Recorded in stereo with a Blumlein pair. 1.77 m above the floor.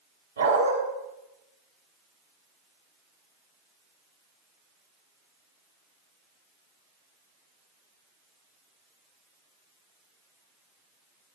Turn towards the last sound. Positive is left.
turn(degrees=-70)